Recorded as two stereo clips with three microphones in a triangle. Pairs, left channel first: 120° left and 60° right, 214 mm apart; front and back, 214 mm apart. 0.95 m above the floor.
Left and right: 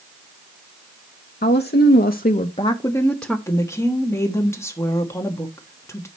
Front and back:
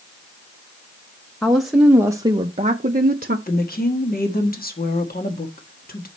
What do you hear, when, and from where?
1.4 s a woman speaking: 85° left, 0.9 m; by 3.4 s 150° right, 0.7 m
3.5 s a woman speaking: 45° left, 1.3 m